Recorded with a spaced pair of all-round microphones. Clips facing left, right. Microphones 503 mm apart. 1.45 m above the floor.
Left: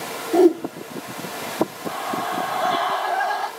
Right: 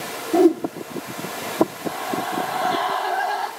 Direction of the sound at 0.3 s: 30° right (ahead or behind).